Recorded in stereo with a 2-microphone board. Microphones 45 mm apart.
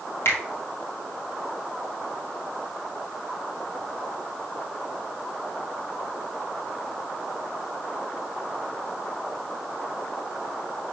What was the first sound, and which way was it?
A finger snap, 55° left (ahead or behind).